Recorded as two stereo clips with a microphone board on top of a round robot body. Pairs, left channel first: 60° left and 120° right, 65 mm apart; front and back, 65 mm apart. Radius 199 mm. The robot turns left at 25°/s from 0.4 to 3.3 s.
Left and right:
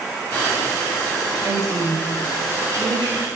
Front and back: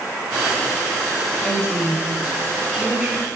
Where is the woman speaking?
80° right, 3.5 m; by 3.3 s 125° right, 3.5 m.